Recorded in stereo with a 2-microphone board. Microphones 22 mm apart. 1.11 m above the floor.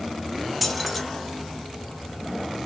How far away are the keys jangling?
About 1.3 m.